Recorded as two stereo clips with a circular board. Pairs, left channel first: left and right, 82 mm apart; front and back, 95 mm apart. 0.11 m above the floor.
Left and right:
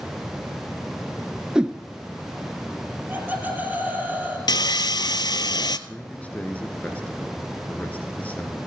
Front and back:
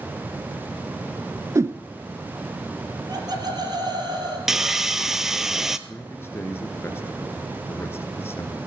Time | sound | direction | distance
1.6 | a whoosh | 160° right | 0.5 m
3.1 | laughter | 155° right | 3 m
4.5 | sawing | 95° left | 0.5 m
5.9 | a man speaking | 35° left | 1.8 m